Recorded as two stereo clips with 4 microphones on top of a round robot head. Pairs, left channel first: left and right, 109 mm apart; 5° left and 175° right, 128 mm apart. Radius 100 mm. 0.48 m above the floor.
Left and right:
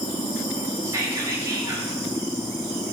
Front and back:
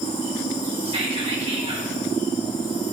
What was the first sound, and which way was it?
Whispering, 140° right.